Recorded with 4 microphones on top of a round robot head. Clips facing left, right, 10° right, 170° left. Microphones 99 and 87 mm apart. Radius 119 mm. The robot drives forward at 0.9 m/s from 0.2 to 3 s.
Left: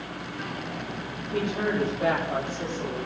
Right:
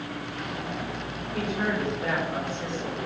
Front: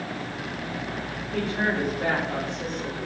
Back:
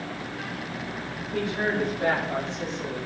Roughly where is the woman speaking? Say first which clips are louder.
Left 2 dB, even; left.